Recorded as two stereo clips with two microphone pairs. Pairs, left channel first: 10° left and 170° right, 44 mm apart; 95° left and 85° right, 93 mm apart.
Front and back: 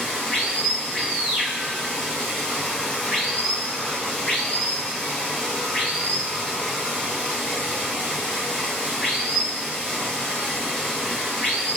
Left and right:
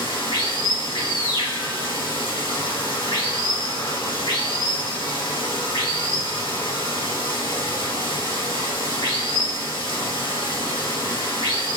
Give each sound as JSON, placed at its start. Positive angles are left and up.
{"t": 0.0, "sound": "running water", "azimuth_deg": 85, "distance_m": 2.5}